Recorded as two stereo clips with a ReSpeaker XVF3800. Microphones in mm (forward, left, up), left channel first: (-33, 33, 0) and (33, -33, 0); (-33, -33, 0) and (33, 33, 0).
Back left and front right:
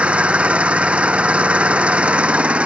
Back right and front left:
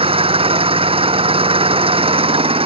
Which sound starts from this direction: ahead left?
An engine running, at 0.0 s.